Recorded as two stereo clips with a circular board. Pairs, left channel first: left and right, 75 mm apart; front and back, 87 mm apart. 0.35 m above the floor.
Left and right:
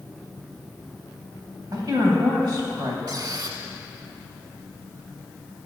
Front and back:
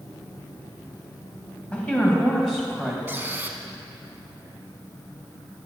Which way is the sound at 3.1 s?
115° right.